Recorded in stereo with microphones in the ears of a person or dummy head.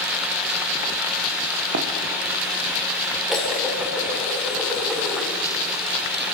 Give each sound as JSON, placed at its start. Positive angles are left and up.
{"t": 1.7, "sound": "running footsteps", "side_deg": -55, "distance_m": 2.5}
{"t": 3.3, "sound": "dishes clattering", "side_deg": 0, "distance_m": 3.0}